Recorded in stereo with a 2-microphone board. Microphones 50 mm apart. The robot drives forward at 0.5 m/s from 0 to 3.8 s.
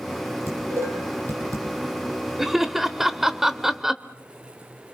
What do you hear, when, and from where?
0.5 s dishes clattering: 75° right (ahead or behind), 7.5 m
2.4 s laughter: 10° right (ahead or behind), 0.9 m